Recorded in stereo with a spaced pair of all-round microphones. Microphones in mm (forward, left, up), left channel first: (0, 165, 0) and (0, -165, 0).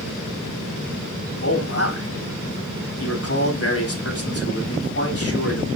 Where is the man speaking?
45° left (ahead or behind), 3.5 m.